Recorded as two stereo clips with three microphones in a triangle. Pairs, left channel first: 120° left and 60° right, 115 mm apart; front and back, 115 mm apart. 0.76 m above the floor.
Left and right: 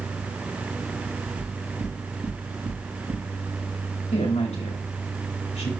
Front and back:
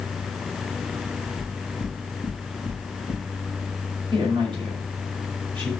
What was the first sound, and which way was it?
Knocking, 55° right.